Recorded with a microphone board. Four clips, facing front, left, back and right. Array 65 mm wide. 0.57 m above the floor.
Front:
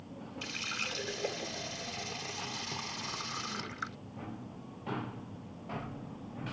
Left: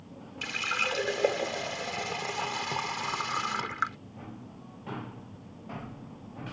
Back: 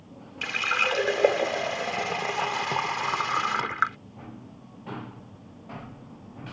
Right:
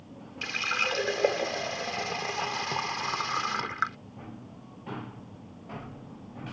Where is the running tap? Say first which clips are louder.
Right 1 dB, back 15 dB; 175° right.